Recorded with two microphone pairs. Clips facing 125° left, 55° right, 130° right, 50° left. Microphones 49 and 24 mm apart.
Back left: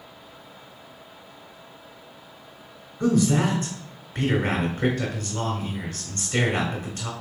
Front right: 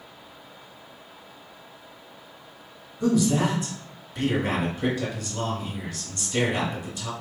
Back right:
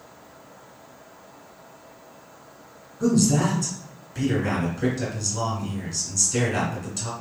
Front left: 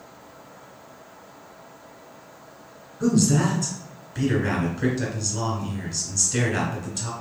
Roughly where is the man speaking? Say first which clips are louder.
Back left 1 dB, even; behind left.